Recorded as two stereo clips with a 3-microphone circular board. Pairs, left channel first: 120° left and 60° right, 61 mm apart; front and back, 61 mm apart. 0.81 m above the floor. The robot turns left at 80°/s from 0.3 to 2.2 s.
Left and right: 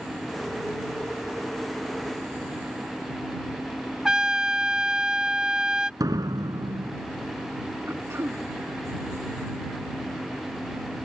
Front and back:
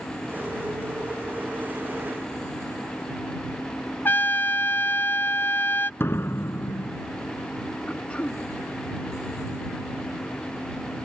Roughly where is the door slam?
Ahead right.